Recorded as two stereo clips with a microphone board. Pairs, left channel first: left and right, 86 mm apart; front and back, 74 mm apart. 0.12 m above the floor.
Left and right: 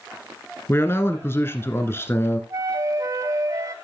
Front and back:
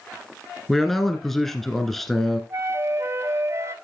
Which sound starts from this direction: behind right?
A flute, at 2.5 s.